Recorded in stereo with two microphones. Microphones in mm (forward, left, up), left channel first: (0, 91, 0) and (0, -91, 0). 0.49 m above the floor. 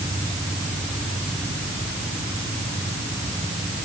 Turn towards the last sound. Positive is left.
No sound to turn to.